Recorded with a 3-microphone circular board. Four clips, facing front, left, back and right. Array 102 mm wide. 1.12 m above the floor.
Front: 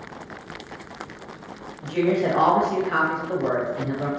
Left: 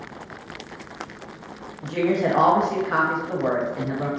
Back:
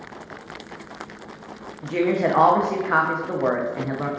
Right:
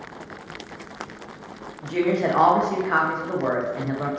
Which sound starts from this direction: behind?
A woman speaking, at 1.8 s.